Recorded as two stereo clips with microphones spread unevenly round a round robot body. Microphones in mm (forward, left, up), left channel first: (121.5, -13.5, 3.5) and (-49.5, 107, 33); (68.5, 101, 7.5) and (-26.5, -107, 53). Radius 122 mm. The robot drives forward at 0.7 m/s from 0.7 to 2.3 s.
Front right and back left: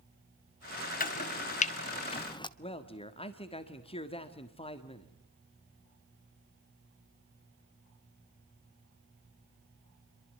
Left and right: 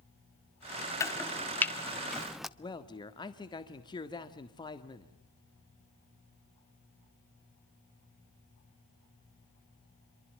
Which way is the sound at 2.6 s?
10° left.